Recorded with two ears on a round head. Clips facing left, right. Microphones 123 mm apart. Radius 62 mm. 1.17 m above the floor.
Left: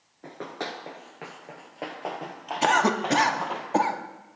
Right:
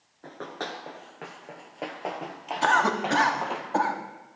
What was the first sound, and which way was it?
Running footsteps, 10° left (ahead or behind).